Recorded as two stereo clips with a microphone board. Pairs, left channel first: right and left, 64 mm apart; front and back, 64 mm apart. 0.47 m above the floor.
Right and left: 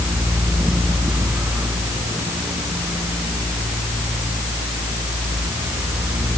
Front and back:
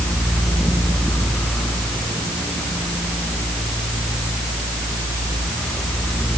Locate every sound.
Only background noise.